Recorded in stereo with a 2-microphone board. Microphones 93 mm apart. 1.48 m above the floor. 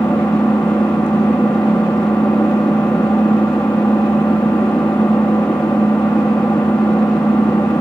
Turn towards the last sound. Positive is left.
turn(degrees=10)  # may be behind; listen again after turning